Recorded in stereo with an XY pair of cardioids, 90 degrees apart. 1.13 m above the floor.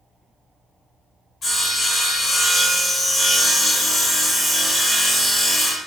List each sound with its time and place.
1.4 s sawing: 65° left, 1.8 m